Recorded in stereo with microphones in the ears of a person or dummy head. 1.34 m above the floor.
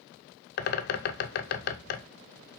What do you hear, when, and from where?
0.6 s a bird: 55° left (ahead or behind), 0.9 m